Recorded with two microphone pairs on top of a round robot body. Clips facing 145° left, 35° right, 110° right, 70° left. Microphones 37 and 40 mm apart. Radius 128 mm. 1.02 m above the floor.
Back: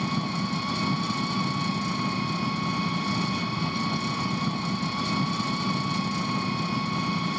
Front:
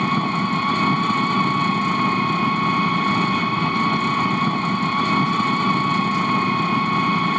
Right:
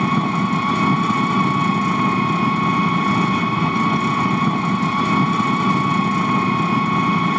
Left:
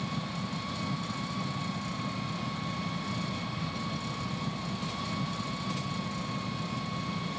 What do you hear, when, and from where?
0.0 s an engine running: 80° right